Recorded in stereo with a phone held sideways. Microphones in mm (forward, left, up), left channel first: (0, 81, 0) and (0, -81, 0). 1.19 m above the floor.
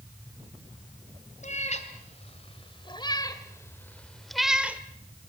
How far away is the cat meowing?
About 2.5 m.